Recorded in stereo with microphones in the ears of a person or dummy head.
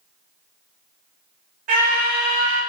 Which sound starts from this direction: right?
A scream, at 1.7 s.